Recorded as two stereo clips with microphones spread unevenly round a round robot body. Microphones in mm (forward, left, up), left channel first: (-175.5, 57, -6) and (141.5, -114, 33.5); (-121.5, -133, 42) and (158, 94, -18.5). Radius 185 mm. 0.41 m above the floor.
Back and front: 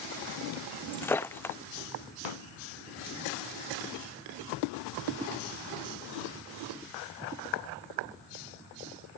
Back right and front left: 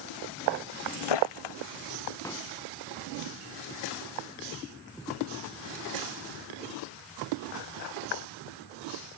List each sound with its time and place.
0.9 s breaking glass: 125° right
2.2 s a pop: 135° left